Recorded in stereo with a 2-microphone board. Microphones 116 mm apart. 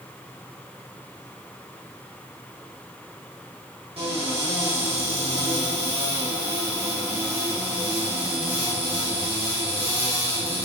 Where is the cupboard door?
55° right (ahead or behind), 2 m.